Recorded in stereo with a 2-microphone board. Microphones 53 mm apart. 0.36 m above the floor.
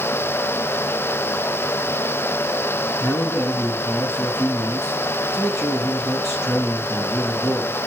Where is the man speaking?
75° left (ahead or behind), 4 m.